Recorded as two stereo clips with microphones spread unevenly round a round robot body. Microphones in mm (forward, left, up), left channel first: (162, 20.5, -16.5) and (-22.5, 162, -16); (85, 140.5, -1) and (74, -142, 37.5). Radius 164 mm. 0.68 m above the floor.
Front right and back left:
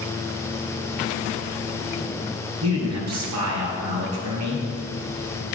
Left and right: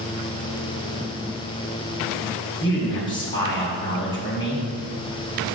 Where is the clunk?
I don't hear a clunk.